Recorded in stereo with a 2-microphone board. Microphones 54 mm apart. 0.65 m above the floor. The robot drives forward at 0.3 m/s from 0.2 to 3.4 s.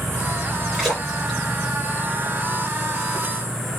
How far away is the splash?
About 2.5 m.